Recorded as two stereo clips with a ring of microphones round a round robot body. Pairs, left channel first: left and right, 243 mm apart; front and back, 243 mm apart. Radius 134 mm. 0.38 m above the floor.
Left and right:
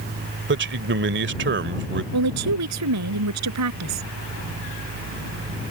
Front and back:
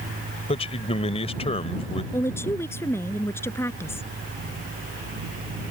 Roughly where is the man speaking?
Ahead right.